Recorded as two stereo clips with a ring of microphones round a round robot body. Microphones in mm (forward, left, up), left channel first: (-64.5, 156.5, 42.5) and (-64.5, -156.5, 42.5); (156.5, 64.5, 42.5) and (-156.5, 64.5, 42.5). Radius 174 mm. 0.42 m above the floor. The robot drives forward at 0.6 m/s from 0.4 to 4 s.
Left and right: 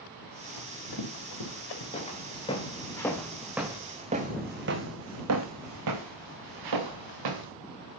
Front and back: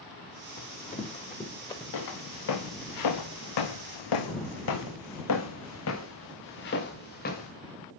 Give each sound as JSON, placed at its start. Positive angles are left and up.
{"t": 0.6, "sound": "running footsteps", "azimuth_deg": 60, "distance_m": 4.0}
{"t": 1.9, "sound": "footsteps", "azimuth_deg": 20, "distance_m": 3.0}